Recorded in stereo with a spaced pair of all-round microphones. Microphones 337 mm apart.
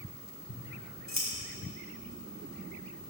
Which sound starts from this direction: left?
Scissors, at 0.5 s.